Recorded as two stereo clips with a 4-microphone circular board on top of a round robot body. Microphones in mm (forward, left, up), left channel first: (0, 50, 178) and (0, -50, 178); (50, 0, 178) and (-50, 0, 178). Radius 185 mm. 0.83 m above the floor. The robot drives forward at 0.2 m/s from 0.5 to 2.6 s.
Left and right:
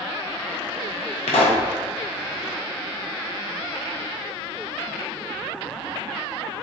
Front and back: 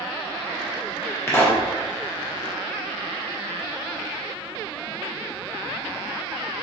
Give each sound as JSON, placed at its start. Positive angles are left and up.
{"t": 1.3, "sound": "a pop", "azimuth_deg": 65, "distance_m": 0.5}